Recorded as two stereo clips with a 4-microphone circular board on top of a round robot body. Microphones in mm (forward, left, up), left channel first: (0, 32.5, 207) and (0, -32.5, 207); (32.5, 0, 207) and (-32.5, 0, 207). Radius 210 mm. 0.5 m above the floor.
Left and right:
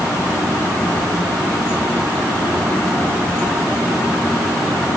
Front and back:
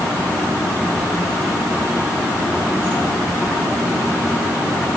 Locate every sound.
Only background noise.